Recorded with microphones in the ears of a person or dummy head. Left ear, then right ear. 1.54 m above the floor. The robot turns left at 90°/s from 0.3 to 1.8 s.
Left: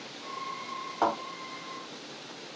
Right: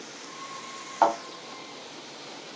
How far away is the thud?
About 1.8 m.